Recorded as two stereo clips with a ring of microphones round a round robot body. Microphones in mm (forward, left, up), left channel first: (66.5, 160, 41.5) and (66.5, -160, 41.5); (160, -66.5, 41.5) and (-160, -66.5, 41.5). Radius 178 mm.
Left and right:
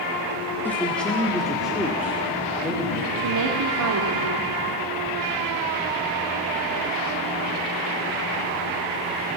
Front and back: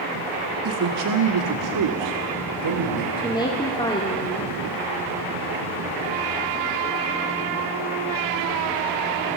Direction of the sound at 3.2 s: 75° right.